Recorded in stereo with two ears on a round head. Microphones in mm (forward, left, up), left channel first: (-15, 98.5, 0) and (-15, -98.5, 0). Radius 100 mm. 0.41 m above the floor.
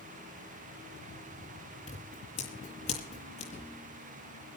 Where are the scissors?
30° left (ahead or behind), 7.5 m.